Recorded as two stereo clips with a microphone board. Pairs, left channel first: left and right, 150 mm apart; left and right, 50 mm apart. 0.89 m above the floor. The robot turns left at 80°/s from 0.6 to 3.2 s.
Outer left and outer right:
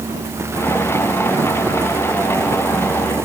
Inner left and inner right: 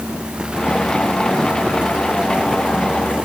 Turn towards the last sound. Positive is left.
No sound to turn to.